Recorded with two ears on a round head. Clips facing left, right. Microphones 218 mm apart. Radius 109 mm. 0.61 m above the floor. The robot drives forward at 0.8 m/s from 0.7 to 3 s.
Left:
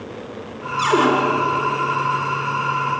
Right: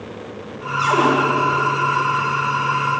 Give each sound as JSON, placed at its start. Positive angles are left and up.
{"t": 0.8, "sound": "a cupboard door", "side_deg": 45, "distance_m": 7.0}